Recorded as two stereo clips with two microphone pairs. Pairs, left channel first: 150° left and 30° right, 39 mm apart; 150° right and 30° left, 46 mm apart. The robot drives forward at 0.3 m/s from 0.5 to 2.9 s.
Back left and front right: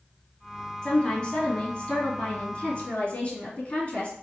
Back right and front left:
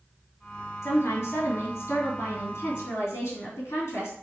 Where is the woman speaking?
145° right, 2 m; by 4.1 s 155° right, 2.5 m.